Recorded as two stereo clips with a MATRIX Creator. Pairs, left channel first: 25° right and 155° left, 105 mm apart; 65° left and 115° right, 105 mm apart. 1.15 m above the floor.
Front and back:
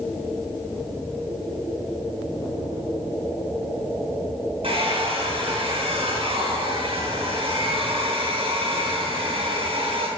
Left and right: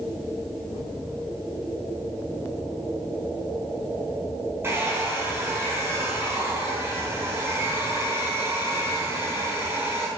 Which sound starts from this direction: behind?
A hair dryer, at 4.6 s.